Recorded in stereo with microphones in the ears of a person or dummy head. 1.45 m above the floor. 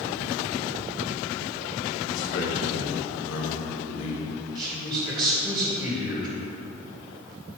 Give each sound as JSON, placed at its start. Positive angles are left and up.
{"t": 2.1, "sound": "a man speaking", "side_deg": 80, "distance_m": 1.4}
{"t": 4.5, "sound": "a man speaking", "side_deg": -20, "distance_m": 2.0}